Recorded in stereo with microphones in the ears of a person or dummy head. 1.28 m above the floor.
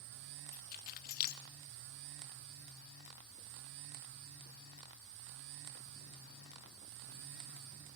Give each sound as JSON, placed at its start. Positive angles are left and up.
{"t": 0.5, "sound": "keys jangling", "side_deg": 50, "distance_m": 1.0}